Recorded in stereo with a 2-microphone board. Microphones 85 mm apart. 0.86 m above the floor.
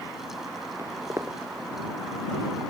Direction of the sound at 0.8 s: 30° right (ahead or behind).